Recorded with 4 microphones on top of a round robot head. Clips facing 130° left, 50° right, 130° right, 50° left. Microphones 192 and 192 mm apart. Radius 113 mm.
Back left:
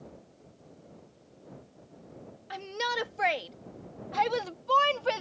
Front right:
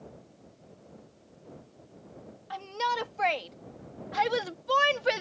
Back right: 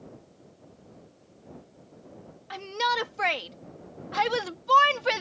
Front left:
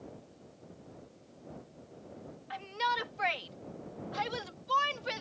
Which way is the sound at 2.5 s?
165° right.